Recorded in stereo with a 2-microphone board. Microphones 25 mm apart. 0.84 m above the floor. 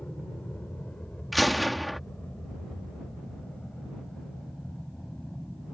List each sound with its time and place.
0.0 s an aircraft: 65° left (ahead or behind); by 5.7 s 50° left (ahead or behind)
1.3 s a gunshot: centre (ahead or behind)